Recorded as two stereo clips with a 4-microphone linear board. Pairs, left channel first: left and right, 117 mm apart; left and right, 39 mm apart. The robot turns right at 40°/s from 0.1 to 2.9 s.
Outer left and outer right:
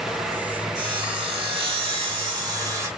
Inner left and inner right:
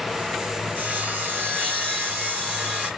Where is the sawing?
125° right, 1.0 m; by 2.9 s 35° right, 1.0 m.